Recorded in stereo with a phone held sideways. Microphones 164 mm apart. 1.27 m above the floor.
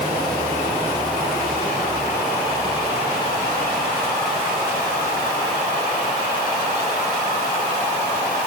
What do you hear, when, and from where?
Only background noise.